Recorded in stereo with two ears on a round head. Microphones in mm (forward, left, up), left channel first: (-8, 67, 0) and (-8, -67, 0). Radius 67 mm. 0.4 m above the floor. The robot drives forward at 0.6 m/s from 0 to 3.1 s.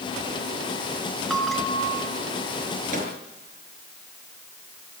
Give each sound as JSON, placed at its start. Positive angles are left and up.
{"t": 1.3, "sound": "a bell", "side_deg": 0, "distance_m": 3.5}
{"t": 2.9, "sound": "a microwave", "side_deg": -55, "distance_m": 6.5}